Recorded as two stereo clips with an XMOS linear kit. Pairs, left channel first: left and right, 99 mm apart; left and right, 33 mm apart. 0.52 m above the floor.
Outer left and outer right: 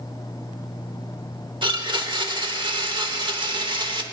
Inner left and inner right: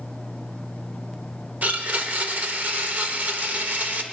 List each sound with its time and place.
1.6 s a blender: 55° right (ahead or behind), 1.0 m